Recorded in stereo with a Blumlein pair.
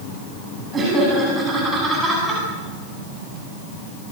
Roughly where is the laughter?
Ahead.